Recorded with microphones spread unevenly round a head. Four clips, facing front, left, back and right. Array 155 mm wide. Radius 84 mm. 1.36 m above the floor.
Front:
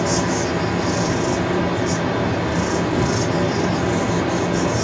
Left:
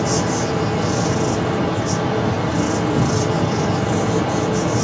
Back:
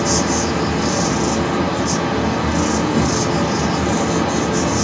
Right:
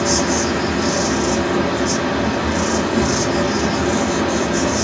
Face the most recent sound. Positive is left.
turn(degrees=160)